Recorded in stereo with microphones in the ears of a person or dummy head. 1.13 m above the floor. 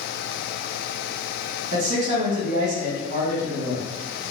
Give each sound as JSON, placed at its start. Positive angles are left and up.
{"t": 1.7, "sound": "a man speaking", "side_deg": -60, "distance_m": 1.2}